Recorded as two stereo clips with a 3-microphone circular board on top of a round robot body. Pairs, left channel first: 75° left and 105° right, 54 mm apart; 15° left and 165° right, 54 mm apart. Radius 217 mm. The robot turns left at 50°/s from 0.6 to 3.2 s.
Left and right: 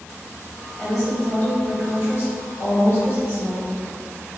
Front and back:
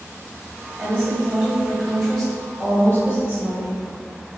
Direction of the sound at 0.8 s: 170° left.